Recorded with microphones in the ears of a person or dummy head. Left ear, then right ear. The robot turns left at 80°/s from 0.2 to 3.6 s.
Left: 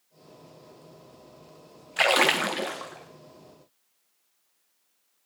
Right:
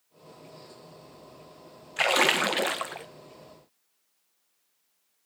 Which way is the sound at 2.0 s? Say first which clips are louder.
Left 1 dB; 20° left.